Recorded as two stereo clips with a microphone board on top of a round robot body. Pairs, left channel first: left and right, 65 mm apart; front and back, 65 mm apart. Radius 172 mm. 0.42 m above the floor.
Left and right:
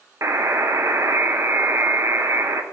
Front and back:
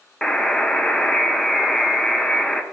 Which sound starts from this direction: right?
A buzzer, at 0.2 s.